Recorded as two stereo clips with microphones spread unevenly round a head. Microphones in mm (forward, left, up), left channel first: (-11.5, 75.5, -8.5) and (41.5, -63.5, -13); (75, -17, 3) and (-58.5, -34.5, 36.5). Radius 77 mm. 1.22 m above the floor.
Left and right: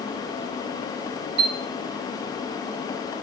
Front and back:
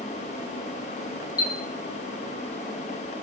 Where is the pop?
I don't hear a pop.